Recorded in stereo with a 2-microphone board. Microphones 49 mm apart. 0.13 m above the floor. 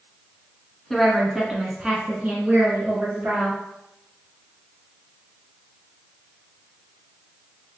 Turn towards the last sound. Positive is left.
turn(degrees=-45)  # may be behind; listen again after turning